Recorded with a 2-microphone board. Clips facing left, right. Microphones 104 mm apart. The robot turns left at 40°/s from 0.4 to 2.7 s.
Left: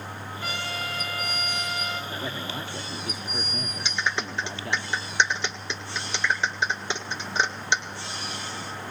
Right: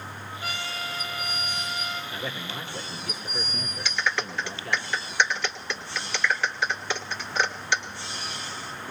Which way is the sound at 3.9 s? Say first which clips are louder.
Right 1 dB; 20° left (ahead or behind).